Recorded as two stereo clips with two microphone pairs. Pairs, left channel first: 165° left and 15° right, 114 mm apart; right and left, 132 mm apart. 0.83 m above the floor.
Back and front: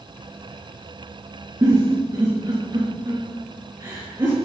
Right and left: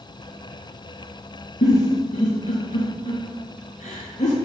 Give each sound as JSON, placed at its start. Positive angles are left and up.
{"t": 1.6, "sound": "a giggle", "azimuth_deg": -75, "distance_m": 5.5}